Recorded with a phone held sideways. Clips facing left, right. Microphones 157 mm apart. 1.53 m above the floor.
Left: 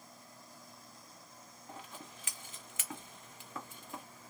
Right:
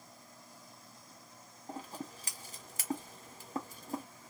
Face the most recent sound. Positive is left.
turn(degrees=-35)  # may be behind; listen again after turning